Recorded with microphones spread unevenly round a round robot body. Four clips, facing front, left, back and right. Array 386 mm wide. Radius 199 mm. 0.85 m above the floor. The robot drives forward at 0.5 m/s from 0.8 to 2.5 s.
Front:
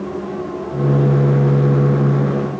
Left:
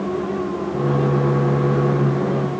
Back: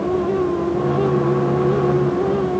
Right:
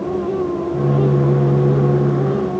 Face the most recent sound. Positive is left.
No sound to turn to.